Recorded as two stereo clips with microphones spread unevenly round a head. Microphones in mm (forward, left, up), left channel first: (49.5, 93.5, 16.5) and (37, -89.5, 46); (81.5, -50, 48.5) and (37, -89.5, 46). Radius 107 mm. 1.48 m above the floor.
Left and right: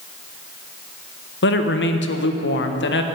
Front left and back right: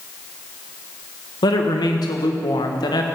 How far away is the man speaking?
About 1.3 m.